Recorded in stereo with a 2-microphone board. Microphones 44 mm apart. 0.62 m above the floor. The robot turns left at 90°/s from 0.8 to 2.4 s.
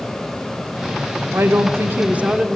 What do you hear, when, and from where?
1.3 s a woman speaking: 65° right, 1.1 m; by 2.6 s 165° right, 1.1 m